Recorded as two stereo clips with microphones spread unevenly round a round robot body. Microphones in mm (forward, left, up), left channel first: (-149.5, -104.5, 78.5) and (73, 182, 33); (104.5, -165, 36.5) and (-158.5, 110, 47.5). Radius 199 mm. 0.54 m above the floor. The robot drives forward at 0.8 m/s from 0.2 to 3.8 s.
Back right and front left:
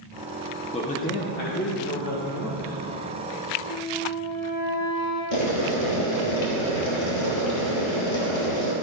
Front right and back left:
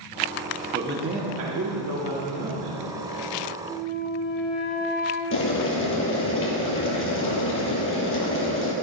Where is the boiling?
105° right, 2 m.